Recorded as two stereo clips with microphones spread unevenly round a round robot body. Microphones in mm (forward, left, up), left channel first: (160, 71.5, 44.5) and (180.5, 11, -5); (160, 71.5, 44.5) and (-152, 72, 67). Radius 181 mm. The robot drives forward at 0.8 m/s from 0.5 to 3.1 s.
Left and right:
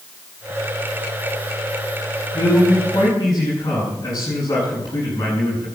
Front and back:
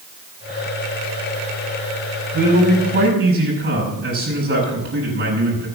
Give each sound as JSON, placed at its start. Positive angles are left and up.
{"t": 2.3, "sound": "a man speaking", "azimuth_deg": 125, "distance_m": 8.0}